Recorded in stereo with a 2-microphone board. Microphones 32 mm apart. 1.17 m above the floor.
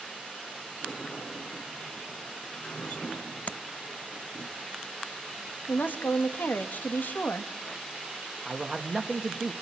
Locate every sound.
0.8 s a sliding door: 40° left (ahead or behind), 7.5 m
3.5 s tapping: 50° left (ahead or behind), 0.5 m
5.7 s a woman speaking: 75° left (ahead or behind), 2 m
8.4 s a man speaking: 10° right (ahead or behind), 2 m